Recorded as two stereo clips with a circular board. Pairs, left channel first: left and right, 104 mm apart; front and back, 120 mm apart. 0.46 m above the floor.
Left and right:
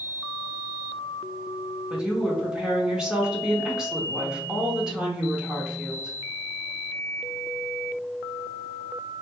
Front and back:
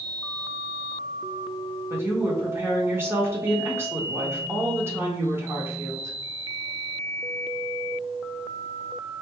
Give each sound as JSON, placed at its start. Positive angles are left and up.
{"t": 1.9, "sound": "a woman speaking", "azimuth_deg": -165, "distance_m": 1.0}